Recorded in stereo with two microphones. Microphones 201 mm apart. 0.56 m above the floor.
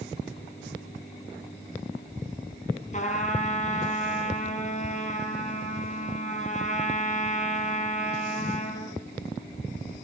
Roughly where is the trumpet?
Left.